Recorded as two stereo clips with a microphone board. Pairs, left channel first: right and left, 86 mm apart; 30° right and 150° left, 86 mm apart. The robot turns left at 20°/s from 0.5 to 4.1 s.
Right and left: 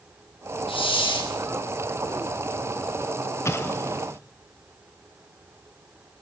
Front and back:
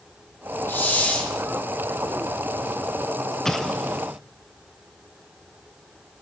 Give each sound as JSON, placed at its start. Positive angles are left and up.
{"t": 0.7, "sound": "a hiss", "azimuth_deg": -95, "distance_m": 1.5}
{"t": 3.5, "sound": "an explosion", "azimuth_deg": -110, "distance_m": 0.5}